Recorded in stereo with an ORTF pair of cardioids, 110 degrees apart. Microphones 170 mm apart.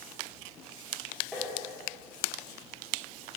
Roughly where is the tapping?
Ahead.